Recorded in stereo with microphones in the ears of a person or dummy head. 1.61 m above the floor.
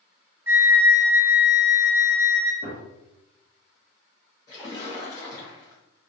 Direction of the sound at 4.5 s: 20° left (ahead or behind).